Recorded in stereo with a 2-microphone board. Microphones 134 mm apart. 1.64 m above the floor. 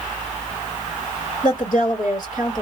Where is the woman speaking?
70° left (ahead or behind), 2 m.